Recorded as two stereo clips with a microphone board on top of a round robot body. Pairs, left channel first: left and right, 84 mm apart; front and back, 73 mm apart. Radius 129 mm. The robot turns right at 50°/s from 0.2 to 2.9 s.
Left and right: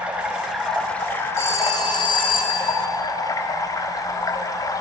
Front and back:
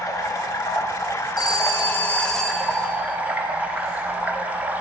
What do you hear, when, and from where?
0.0 s running water: 20° right, 1.1 m; by 4.8 s 115° left, 1.1 m
1.4 s a phone ringing: 30° left, 1.1 m; by 2.8 s 100° left, 1.1 m